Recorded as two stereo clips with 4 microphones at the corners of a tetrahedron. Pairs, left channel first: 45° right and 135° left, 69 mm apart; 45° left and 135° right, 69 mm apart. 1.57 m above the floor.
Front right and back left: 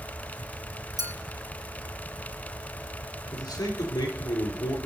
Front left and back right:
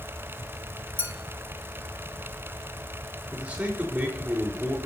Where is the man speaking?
70° right, 3.5 m.